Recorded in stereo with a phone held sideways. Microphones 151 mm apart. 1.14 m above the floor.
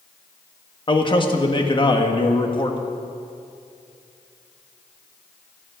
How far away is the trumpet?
No trumpet in this recording.